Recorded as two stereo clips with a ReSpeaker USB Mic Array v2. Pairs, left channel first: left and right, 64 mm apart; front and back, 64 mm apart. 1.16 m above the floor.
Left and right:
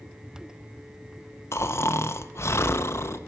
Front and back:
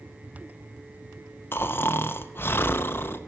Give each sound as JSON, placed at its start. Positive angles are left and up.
{"t": 1.5, "sound": "snoring", "azimuth_deg": 50, "distance_m": 0.6}